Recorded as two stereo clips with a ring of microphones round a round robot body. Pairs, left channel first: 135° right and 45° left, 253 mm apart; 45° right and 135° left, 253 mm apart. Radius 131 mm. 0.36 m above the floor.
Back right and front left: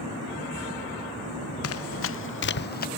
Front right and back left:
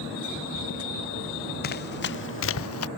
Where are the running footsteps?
100° right; by 2.9 s 80° right.